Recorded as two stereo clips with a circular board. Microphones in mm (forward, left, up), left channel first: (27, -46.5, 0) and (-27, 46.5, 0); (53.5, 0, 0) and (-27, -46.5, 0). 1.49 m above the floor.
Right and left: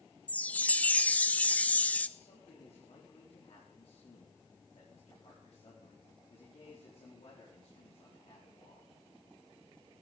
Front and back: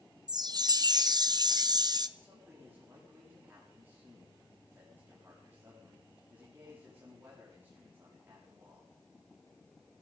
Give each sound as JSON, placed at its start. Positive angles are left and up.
{"t": 0.3, "sound": "a chime", "azimuth_deg": -130, "distance_m": 0.7}
{"t": 2.2, "sound": "a man speaking", "azimuth_deg": -80, "distance_m": 4.5}